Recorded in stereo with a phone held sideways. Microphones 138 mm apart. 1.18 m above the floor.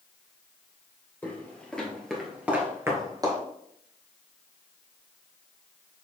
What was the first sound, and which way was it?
Footsteps, 15° left (ahead or behind).